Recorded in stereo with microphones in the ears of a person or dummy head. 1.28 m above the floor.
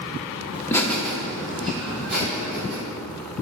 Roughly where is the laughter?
Centre.